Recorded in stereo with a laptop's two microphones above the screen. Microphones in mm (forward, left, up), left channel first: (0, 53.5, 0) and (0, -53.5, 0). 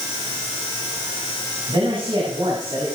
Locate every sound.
1.7 s a man speaking: 65° right (ahead or behind), 8.5 m